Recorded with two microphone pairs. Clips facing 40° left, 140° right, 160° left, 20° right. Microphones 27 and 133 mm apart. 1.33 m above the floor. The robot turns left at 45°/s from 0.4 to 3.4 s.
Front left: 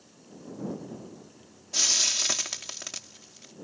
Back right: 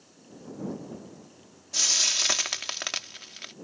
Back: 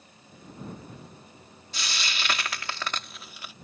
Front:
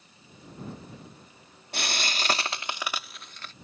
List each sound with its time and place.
1.7 s frying: 50° right; by 3.5 s 125° right